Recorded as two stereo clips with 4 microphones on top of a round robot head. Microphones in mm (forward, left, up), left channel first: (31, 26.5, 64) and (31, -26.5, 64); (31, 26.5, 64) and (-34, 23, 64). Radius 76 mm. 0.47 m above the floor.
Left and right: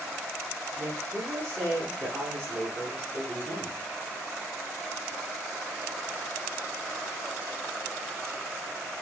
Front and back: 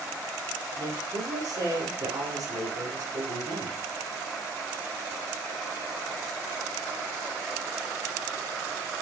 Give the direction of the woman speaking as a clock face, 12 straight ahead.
5 o'clock.